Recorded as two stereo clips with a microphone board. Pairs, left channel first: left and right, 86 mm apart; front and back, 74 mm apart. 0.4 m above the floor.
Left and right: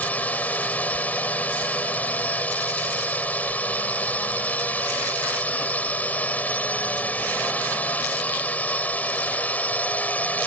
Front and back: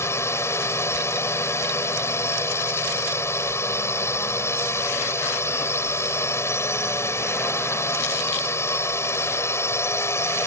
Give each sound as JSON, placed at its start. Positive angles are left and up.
{"t": 0.0, "sound": "a drone", "azimuth_deg": 25}